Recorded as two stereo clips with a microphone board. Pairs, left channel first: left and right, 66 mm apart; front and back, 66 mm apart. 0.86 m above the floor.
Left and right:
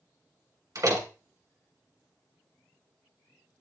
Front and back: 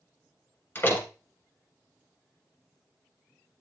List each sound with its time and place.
0.8 s a door slam: 55° right, 1.9 m